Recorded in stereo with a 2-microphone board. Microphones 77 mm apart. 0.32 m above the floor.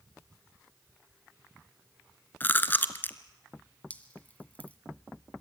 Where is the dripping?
20° left (ahead or behind), 2.0 m.